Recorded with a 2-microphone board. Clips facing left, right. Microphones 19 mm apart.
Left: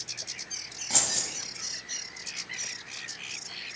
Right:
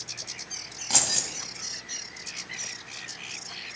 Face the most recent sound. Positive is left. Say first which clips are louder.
# right 3 dB
turn(degrees=-35)  # may be behind; listen again after turning